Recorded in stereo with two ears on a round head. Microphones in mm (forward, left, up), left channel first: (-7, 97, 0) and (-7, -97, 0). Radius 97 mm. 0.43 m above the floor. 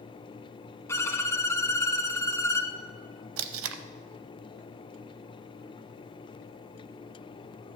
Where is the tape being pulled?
70° right (ahead or behind), 0.7 m.